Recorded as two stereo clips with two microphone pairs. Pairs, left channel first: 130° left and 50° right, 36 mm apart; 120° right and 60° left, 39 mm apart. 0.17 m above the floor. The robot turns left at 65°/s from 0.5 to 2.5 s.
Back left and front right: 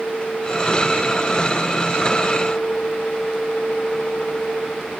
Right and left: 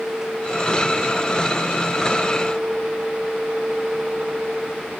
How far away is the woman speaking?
No woman speaking in this recording.